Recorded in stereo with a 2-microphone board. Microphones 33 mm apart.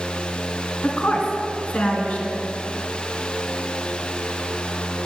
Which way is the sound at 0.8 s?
50° left (ahead or behind).